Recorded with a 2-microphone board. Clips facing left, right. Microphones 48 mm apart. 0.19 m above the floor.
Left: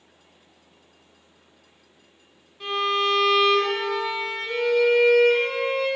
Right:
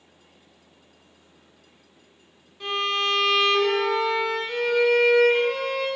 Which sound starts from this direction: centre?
A violin, at 2.6 s.